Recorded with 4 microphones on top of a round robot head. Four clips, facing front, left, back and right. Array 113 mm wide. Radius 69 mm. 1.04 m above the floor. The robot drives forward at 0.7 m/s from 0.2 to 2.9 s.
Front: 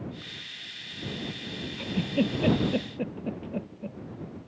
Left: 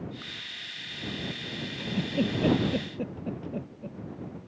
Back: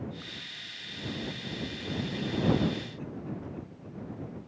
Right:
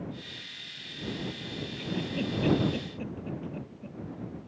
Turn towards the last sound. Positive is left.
turn(degrees=25)